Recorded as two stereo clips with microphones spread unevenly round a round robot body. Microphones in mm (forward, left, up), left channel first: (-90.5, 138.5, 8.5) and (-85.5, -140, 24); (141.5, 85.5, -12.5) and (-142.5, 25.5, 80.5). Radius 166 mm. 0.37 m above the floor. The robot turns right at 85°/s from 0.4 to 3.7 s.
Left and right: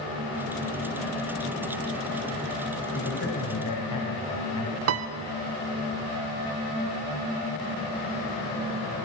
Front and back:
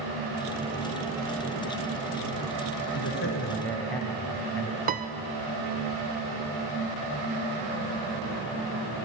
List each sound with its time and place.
2.9 s a man speaking: 25° left, 2.5 m; by 4.8 s 90° left, 2.5 m
4.9 s a piano: 95° right, 0.7 m